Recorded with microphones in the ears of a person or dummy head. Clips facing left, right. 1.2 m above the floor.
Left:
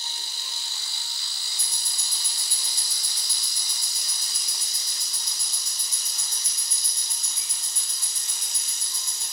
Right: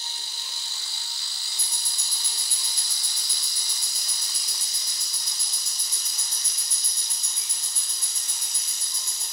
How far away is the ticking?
About 0.7 m.